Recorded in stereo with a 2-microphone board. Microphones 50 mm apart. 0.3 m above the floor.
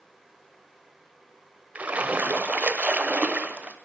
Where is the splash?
30° right (ahead or behind), 0.8 m.